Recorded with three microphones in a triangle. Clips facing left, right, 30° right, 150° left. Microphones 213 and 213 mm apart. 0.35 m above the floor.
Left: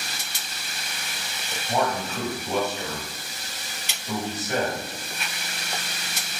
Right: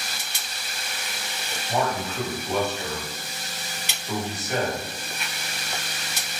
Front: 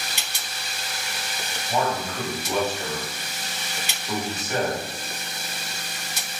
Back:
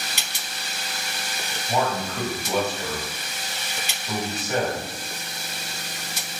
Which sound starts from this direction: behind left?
A man speaking, at 1.7 s.